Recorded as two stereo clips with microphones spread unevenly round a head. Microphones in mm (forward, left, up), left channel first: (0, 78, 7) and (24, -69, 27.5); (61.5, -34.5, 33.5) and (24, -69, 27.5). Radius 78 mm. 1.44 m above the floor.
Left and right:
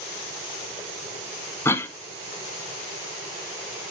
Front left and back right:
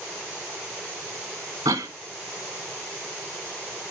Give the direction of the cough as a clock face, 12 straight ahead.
6 o'clock.